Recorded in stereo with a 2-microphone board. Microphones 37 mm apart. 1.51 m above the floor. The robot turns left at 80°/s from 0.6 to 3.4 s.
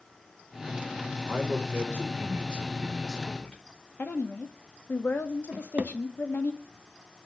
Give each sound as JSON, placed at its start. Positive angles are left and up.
{"t": 1.2, "sound": "a man speaking", "azimuth_deg": -50, "distance_m": 4.5}
{"t": 4.0, "sound": "a woman speaking", "side_deg": 65, "distance_m": 2.0}
{"t": 5.5, "sound": "a drawer", "side_deg": -40, "distance_m": 1.0}